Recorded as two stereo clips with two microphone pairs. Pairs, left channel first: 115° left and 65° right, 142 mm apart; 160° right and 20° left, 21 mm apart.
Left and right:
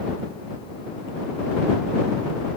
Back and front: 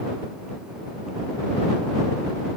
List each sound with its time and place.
Only background noise.